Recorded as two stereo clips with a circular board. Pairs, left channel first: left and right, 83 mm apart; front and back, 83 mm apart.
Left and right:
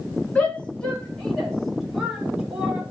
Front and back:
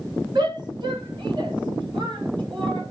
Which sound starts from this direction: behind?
A shout, at 0.3 s.